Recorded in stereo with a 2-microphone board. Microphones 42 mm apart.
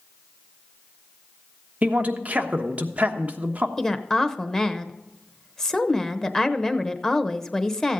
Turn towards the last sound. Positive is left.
turn(degrees=15)  # may be behind; listen again after turning